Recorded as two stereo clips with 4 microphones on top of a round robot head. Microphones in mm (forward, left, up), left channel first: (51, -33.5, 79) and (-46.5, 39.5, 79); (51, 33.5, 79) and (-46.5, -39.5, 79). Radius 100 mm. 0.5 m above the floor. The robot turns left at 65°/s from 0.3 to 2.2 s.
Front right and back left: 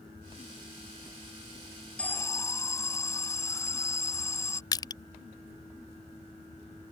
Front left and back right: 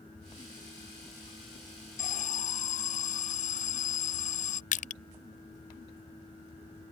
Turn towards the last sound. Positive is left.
turn(degrees=25)